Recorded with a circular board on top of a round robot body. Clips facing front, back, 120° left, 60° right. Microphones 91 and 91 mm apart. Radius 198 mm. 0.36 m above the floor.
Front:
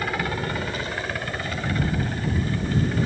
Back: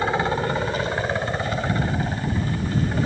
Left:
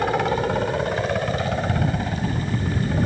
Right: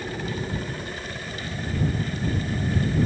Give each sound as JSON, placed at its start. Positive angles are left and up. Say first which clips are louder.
{"t": 0.0, "sound": "a helicopter", "louder": "back 5 dB, left 10 dB", "azimuth_deg": 115}